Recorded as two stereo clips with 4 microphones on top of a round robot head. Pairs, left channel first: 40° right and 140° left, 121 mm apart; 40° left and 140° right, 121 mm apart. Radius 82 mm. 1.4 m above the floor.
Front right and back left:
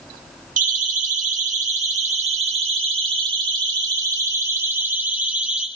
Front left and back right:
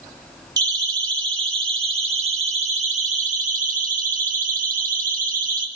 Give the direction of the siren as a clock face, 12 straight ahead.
7 o'clock.